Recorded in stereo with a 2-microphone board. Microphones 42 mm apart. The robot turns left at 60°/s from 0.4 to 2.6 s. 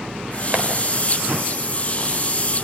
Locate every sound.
0.5 s tapping: 45° right (ahead or behind), 3.5 m; by 0.7 s 50° right (ahead or behind), 3.5 m